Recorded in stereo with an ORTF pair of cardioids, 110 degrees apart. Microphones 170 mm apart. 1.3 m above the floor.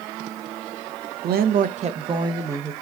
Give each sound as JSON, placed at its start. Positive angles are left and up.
{"t": 1.2, "sound": "a woman speaking", "azimuth_deg": -65, "distance_m": 0.8}